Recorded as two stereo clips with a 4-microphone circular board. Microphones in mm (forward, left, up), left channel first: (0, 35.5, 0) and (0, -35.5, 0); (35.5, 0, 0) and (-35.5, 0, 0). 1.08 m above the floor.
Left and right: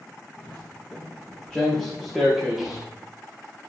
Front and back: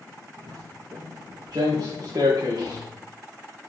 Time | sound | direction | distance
0.4 | footsteps | 150° left | 4.5 m